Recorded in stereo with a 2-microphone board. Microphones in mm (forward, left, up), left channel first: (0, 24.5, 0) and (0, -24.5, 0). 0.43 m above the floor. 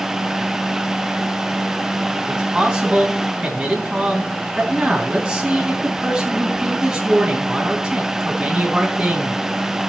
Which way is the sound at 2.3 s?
20° right (ahead or behind).